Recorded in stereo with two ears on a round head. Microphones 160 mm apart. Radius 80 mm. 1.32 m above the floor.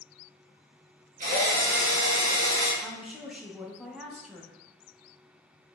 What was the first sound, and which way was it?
A drill, 45° right (ahead or behind).